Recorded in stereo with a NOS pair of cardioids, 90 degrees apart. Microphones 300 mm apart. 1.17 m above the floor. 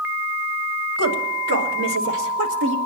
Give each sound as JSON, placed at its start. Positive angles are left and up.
{"t": 1.0, "sound": "a woman speaking", "azimuth_deg": -55, "distance_m": 3.5}